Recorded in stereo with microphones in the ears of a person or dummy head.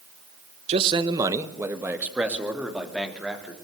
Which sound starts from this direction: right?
A man speaking, at 0.7 s.